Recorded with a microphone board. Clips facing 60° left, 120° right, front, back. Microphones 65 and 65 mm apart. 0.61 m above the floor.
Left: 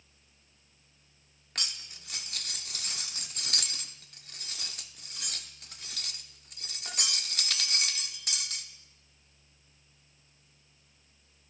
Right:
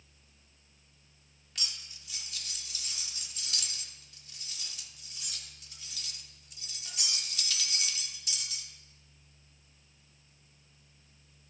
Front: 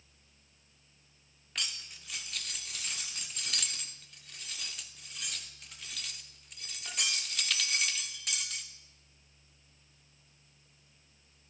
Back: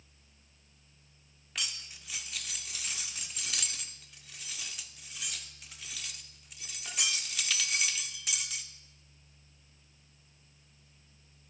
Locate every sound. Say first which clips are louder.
1.6 s cutlery clinking: left 4 dB, even; 95° left, 0.6 m